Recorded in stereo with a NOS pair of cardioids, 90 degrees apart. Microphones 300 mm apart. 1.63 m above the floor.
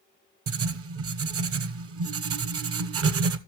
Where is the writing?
50° right, 0.8 m.